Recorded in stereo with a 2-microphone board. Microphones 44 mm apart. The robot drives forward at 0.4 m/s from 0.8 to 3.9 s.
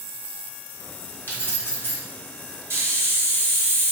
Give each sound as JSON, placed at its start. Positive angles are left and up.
{"t": 1.3, "sound": "keys jangling", "side_deg": 50, "distance_m": 0.9}
{"t": 2.7, "sound": "a hiss", "side_deg": -70, "distance_m": 1.0}